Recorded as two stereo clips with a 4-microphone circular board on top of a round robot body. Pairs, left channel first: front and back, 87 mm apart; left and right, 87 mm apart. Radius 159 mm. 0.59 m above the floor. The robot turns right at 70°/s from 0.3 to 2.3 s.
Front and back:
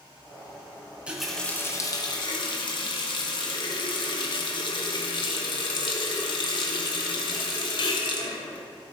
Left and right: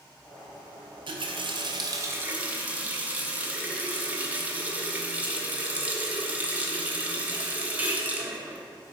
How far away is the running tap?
About 1.2 m.